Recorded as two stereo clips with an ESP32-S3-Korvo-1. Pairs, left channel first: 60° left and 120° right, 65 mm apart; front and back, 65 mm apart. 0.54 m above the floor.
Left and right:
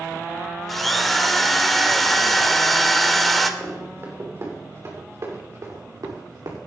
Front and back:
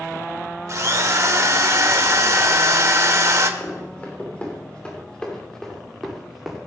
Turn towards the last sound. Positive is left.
turn(degrees=-90)